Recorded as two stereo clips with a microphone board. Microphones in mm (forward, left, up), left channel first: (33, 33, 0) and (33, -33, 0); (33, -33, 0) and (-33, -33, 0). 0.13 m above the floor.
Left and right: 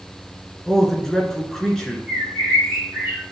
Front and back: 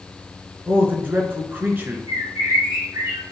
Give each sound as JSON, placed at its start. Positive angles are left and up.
{"t": 0.7, "sound": "a man speaking", "azimuth_deg": 165, "distance_m": 1.8}
{"t": 2.1, "sound": "a bird", "azimuth_deg": 170, "distance_m": 2.5}